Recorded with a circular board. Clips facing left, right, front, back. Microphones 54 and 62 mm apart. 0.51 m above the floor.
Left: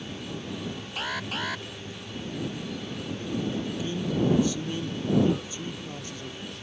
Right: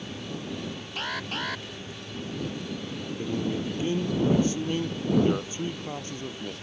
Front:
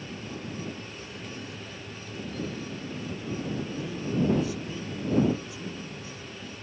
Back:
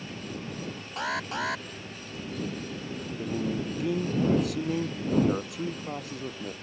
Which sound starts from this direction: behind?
An alarm, at 1.0 s.